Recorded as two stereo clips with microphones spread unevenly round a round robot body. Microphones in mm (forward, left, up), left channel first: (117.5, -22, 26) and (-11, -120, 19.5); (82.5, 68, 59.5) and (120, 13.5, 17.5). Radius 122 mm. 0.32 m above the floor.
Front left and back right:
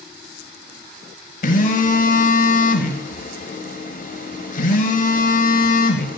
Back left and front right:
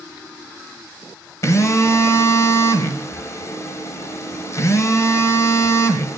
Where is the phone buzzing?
55° left, 0.6 m.